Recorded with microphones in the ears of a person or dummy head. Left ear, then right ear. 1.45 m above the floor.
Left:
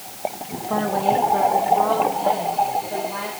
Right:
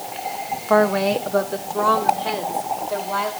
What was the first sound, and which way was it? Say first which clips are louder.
A woman speaking: right 3 dB; 60° right (ahead or behind).